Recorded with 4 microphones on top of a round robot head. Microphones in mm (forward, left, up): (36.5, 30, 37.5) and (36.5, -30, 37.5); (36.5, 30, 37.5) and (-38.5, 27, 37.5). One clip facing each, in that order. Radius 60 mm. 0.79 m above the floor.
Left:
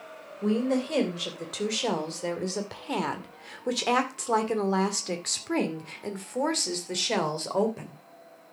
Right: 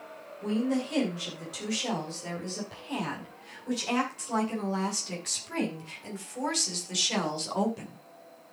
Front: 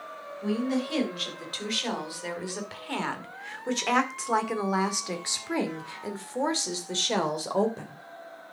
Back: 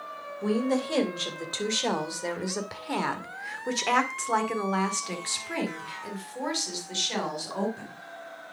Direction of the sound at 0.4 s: 135° left.